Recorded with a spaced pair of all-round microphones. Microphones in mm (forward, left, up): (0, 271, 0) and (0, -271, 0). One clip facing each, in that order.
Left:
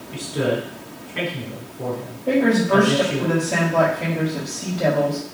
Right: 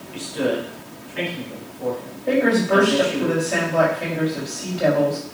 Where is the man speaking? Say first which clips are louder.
Even; 70° left (ahead or behind), 3.5 m.